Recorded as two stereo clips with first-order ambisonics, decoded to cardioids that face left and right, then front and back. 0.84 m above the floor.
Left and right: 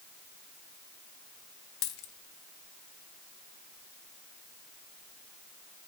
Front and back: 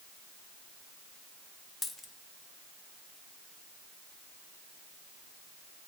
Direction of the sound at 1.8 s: 75° left.